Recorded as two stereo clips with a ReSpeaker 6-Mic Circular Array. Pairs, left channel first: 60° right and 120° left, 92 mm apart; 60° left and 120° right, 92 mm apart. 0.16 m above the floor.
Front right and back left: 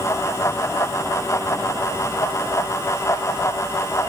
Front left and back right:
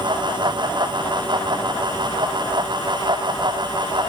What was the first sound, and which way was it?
Only background noise.